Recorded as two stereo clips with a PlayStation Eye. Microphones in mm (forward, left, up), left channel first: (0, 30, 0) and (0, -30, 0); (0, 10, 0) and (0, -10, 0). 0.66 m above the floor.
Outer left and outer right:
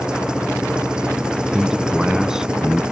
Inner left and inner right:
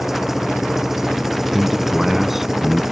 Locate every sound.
0.0 s an engine running: 15° right (ahead or behind)
1.5 s a man speaking: 10° right (ahead or behind)